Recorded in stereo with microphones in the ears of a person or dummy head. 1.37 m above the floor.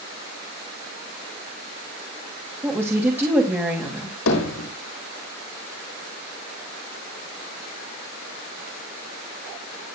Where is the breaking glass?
No breaking glass in this recording.